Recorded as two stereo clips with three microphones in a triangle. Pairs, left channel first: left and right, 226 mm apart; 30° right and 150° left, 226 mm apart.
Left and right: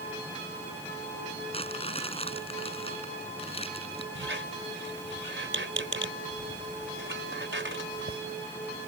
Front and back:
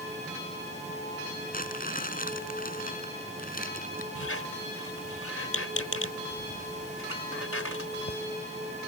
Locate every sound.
1.5 s crumpling: 25° left
4.2 s a squeak: 55° right